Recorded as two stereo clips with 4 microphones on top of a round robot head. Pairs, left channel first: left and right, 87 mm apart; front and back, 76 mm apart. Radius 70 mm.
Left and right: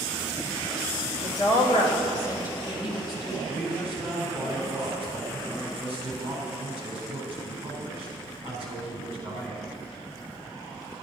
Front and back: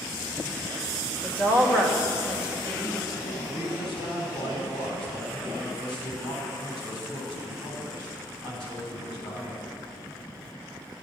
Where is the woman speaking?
65° left, 1.8 m; by 3.4 s 40° left, 4 m.